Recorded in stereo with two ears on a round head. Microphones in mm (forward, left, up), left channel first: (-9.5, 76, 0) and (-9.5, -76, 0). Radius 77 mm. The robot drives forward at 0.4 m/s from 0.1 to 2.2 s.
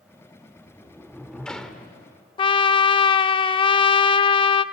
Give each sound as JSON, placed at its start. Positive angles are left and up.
{"t": 0.6, "sound": "a sliding door", "side_deg": 5, "distance_m": 1.3}
{"t": 2.4, "sound": "a trumpet", "side_deg": 30, "distance_m": 0.6}